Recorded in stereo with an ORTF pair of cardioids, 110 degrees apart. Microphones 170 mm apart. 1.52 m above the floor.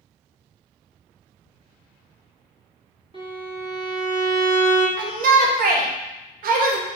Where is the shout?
60° right, 0.9 m.